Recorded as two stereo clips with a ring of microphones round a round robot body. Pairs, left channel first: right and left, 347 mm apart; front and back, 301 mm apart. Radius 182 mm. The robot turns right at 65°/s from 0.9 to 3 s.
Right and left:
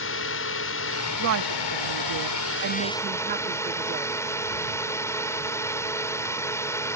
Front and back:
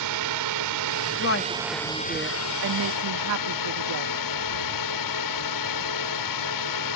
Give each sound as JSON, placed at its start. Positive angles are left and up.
{"t": 0.0, "sound": "a drone", "azimuth_deg": -145}
{"t": 1.2, "sound": "a woman speaking", "azimuth_deg": 40}